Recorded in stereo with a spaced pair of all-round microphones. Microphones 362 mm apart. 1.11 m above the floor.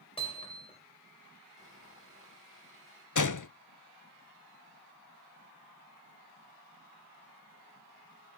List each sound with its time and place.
0.2 s hammering: 15° left (ahead or behind), 3.5 m
1.6 s sawing: 35° left (ahead or behind), 7 m
3.1 s a gunshot: 55° left (ahead or behind), 0.5 m